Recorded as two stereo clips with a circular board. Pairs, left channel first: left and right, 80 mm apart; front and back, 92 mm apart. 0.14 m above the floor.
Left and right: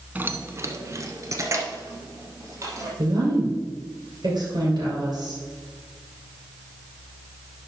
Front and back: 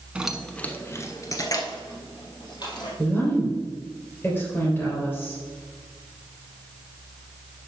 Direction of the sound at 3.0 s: 65° right.